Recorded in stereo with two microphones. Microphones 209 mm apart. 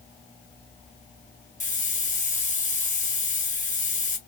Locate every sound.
1.6 s a hiss: 35° left (ahead or behind), 1.0 m